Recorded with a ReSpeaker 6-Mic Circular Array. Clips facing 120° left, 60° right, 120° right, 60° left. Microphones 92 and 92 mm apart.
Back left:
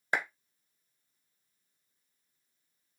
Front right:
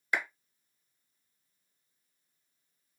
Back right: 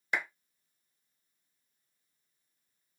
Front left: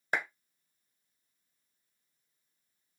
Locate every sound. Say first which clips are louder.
0.1 s a clap: back left 1 dB, front left 1 dB; 80° left, 1.5 m